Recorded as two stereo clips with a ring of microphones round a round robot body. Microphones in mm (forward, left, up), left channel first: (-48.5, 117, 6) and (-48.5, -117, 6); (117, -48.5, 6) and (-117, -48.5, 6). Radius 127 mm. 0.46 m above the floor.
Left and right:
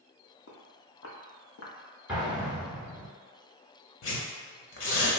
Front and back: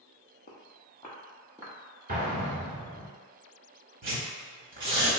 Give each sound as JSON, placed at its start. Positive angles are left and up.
{"t": 0.5, "sound": "footsteps", "azimuth_deg": 55, "distance_m": 0.8}
{"t": 2.1, "sound": "an explosion", "azimuth_deg": -175, "distance_m": 1.3}
{"t": 4.0, "sound": "tearing paper", "azimuth_deg": 125, "distance_m": 0.9}